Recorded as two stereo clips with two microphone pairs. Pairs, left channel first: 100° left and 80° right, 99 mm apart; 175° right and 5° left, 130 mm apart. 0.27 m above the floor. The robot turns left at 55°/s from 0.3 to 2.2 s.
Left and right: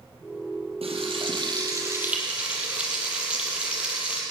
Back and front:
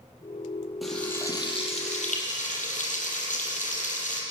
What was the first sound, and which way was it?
Frying, 85° right.